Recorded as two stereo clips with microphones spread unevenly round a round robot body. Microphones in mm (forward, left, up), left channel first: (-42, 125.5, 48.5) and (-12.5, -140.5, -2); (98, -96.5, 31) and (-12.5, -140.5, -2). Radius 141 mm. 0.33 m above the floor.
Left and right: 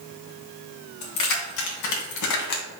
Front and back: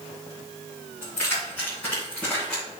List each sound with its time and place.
1.0 s keys jangling: 110° left, 2.5 m; by 2.6 s 115° left, 1.9 m